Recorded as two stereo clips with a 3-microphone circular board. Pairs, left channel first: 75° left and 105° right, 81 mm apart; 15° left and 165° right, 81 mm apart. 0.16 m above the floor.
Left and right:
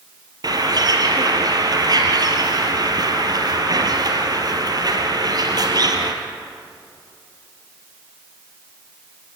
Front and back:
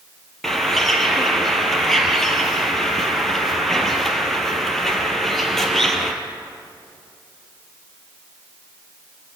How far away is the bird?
About 3 m.